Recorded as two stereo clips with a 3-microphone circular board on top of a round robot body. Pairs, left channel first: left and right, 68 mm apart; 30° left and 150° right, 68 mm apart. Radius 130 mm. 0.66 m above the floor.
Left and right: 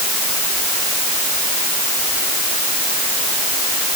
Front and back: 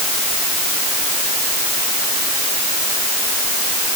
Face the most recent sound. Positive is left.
No sound to turn to.